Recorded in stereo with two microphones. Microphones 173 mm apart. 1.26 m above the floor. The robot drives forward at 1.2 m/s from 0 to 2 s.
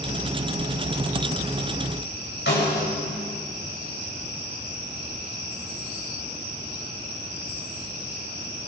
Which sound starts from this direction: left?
A snare drum, at 2.5 s.